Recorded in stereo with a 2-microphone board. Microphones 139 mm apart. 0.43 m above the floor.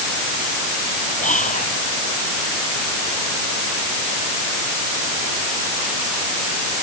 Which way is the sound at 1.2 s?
65° left (ahead or behind).